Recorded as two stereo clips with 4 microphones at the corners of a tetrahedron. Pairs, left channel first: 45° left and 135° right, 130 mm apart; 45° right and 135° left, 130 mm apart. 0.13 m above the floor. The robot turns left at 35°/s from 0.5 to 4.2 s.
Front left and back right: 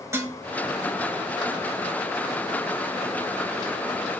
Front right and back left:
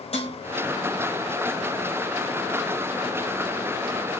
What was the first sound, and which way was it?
Dishes clattering, 70° right.